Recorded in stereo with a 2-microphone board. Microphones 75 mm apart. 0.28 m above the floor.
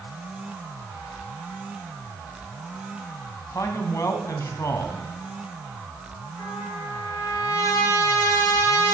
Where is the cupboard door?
No cupboard door in this recording.